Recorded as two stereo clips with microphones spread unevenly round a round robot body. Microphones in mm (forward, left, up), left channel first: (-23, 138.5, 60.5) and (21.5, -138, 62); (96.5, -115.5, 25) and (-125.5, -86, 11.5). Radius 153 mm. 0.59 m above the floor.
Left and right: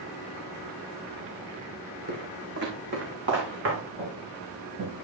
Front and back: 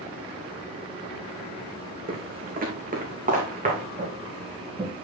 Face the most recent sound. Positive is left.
turn(degrees=-120)